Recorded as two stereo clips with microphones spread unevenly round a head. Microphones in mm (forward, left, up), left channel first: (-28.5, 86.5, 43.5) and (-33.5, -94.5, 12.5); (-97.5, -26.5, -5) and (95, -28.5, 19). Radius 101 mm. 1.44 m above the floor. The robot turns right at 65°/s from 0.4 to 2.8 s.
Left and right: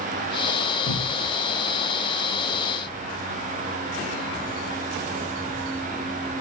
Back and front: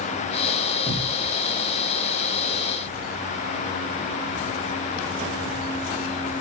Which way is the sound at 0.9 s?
100° left.